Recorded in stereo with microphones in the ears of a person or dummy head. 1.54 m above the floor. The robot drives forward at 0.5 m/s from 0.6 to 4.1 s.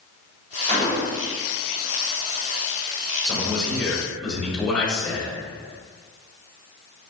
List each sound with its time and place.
0.7 s a gunshot: 35° right (ahead or behind), 1.0 m; by 1.4 s 30° right (ahead or behind), 1.2 m
3.2 s a man speaking: 15° left (ahead or behind), 1.0 m; by 5.3 s 10° left (ahead or behind), 1.4 m